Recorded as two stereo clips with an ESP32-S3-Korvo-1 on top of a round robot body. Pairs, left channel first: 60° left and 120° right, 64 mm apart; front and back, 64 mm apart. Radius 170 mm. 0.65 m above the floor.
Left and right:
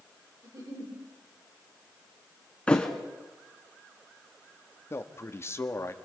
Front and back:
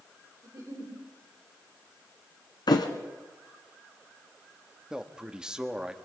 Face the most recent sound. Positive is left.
turn(degrees=105)